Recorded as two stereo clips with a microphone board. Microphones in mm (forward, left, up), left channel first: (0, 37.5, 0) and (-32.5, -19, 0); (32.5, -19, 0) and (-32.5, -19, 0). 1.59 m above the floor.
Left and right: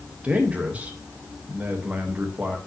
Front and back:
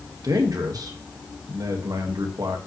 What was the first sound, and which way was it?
A man speaking, 175° left.